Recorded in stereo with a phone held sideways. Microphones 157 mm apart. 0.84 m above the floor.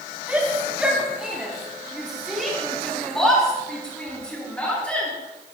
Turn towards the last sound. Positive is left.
turn(degrees=10)  # may be behind; listen again after turning